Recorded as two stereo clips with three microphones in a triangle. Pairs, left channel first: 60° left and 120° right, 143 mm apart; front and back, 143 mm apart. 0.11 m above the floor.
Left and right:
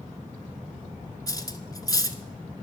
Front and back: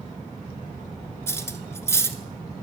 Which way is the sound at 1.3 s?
45° left.